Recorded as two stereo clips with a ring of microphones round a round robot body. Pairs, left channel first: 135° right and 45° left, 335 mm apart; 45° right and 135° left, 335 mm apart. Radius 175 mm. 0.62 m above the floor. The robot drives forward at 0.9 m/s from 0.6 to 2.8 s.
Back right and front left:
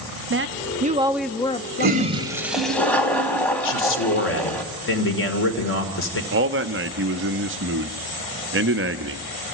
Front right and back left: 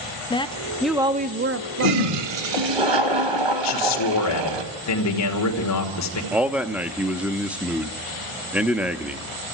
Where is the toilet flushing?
105° left, 1.1 m; by 4.6 s 140° left, 1.6 m.